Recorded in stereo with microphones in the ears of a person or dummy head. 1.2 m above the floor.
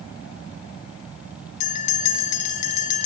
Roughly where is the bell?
Left.